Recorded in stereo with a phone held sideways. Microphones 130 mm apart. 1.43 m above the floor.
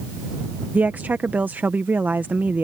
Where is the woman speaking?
15° right (ahead or behind).